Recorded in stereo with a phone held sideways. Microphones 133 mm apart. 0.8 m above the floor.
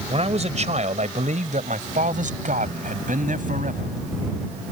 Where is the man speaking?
50° right (ahead or behind); by 3.9 s 85° right.